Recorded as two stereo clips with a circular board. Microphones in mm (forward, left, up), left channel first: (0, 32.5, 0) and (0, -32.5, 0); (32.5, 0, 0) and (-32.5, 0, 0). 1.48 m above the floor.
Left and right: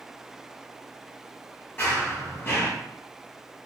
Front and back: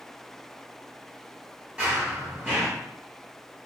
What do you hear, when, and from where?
1.8 s running footsteps: 125° left, 1.7 m